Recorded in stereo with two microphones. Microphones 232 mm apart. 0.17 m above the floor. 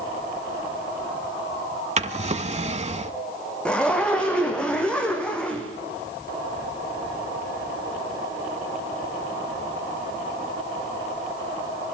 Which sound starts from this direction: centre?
A zipper, at 3.6 s.